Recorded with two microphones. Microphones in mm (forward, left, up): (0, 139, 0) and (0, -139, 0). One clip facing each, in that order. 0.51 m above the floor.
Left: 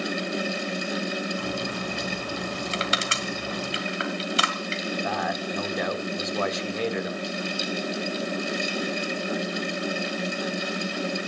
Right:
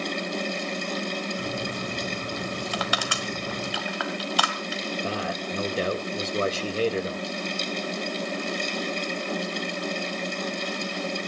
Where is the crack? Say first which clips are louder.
Left 1 dB; 25° right (ahead or behind), 6 m.